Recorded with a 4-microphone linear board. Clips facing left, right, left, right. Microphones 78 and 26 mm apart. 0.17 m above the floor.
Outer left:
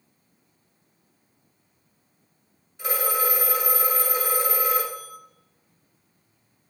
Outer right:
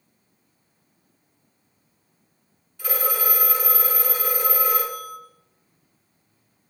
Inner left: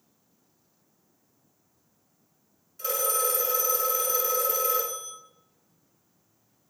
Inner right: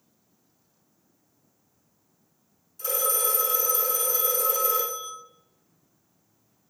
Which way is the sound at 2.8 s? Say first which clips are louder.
Outer left 1 dB, even; 25° left (ahead or behind).